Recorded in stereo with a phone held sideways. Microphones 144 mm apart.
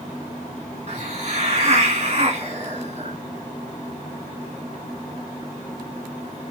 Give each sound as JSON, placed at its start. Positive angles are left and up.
{"t": 0.9, "sound": "a hiss", "side_deg": -45, "distance_m": 1.5}